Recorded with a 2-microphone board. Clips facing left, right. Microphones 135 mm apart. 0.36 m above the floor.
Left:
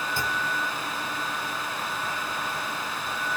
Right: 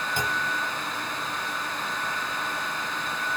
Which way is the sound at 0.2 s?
20° right (ahead or behind).